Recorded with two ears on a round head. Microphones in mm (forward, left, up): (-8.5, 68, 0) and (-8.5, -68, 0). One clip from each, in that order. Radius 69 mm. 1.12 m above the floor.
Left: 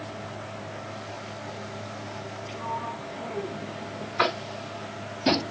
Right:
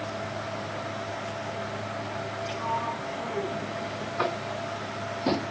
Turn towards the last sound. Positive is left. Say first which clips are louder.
# left 4 dB
turn(degrees=55)  # may be behind; listen again after turning